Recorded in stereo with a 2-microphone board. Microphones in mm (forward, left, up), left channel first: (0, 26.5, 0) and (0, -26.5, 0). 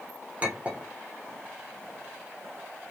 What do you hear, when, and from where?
0.4 s a clink: 30° right (ahead or behind), 1.1 m